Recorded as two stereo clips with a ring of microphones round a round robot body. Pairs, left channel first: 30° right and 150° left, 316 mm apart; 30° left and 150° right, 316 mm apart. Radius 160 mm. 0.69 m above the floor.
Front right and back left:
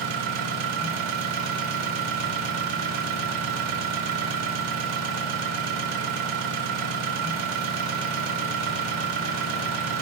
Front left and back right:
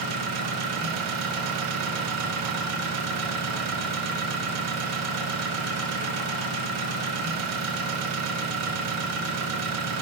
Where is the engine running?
170° left, 2.5 m.